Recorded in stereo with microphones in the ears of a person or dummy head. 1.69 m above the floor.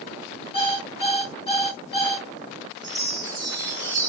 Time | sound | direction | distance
0.5 | an alarm clock | 35° left (ahead or behind) | 1.9 m
2.8 | a chime | 20° right (ahead or behind) | 0.9 m